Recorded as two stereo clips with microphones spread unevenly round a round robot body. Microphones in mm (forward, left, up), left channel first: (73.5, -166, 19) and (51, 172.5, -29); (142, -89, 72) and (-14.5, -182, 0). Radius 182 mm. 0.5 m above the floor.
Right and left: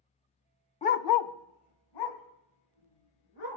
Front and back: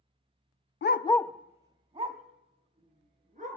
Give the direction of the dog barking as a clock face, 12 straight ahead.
12 o'clock.